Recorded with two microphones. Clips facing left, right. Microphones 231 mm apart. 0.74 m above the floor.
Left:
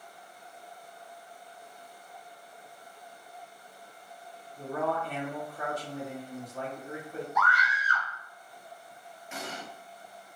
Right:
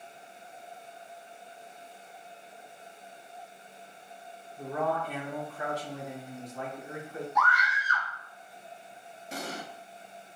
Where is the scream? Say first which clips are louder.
Even; 65° left (ahead or behind), 1.5 m.